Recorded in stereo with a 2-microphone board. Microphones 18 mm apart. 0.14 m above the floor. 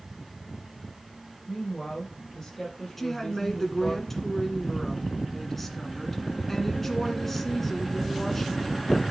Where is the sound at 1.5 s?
35° left (ahead or behind), 5.5 m.